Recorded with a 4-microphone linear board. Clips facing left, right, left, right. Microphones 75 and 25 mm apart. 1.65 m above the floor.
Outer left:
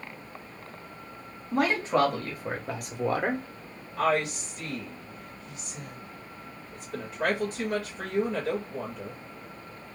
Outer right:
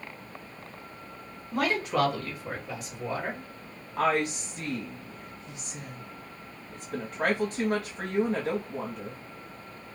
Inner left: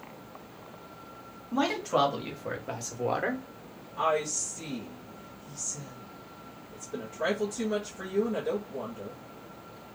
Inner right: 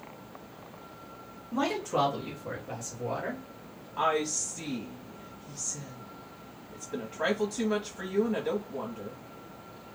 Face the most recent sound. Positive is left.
turn(degrees=-45)  # may be behind; listen again after turning